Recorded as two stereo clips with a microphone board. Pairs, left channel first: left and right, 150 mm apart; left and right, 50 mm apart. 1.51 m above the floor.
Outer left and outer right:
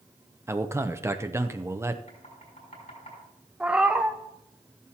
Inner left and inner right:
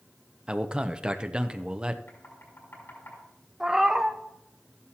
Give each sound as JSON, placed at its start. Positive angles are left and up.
{"t": 0.5, "sound": "a man speaking", "side_deg": -20, "distance_m": 0.7}
{"t": 2.1, "sound": "knocking", "side_deg": 55, "distance_m": 6.0}
{"t": 3.6, "sound": "a cat meowing", "side_deg": -10, "distance_m": 0.7}